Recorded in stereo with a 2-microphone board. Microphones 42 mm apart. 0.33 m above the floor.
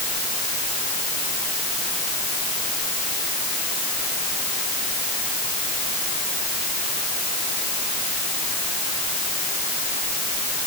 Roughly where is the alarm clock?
No alarm clock in this recording.